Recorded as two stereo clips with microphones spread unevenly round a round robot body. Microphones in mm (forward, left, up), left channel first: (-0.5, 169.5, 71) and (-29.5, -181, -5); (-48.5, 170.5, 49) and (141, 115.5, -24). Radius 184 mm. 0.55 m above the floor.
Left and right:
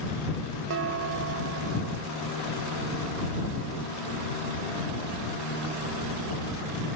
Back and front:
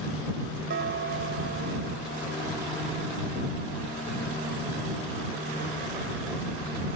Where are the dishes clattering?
50° right.